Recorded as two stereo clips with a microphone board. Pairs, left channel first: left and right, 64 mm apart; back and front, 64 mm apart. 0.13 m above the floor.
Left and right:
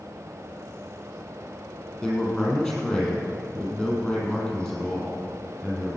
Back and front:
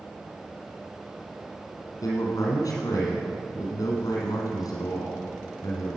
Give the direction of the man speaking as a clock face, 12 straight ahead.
6 o'clock.